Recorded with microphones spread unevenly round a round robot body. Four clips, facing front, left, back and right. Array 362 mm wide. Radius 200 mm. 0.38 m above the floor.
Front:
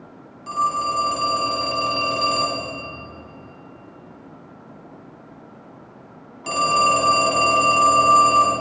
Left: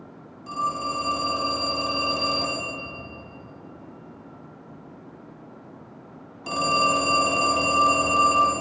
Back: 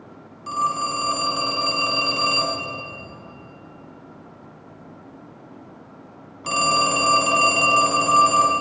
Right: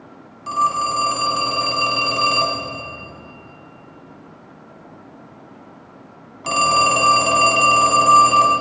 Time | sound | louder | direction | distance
0.5 | a phone ringing | right 8 dB, front 2 dB | 115° right | 2 m